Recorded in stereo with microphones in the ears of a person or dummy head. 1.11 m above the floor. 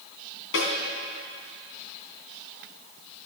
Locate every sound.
0.5 s a snare drum: 75° left (ahead or behind), 3.5 m